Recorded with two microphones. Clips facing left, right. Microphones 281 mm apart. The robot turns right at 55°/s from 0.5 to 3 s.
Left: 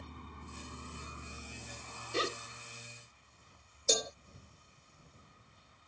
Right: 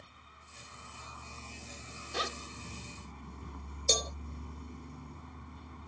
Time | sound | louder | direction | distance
0.0 | a vehicle | left 11 dB | 120° left | ?
2.1 | a zipper | left 4 dB | 30° left (ahead or behind) | ?
3.9 | a cowbell | left 1 dB | 5° left (ahead or behind) | ?